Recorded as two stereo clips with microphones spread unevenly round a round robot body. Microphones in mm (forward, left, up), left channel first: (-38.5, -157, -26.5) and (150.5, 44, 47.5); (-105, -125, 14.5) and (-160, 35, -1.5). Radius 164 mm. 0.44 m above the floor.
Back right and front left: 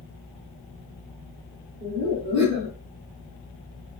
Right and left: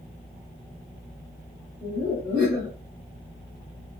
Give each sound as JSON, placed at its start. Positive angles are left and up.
{"t": 1.8, "sound": "laughter", "azimuth_deg": 5, "distance_m": 1.5}